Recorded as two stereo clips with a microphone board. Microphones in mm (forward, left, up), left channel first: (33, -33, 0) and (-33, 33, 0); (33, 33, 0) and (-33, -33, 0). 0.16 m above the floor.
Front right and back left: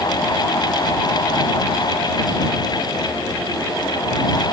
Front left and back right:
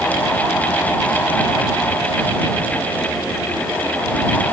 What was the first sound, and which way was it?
Only background noise.